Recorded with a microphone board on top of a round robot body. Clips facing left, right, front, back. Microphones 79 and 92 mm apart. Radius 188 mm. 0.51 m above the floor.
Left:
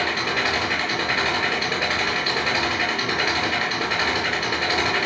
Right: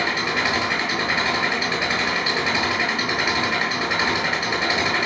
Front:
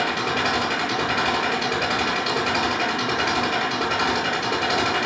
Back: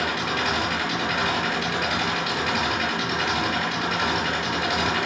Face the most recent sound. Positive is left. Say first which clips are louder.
# right 1 dB, front 2 dB
turn(degrees=-15)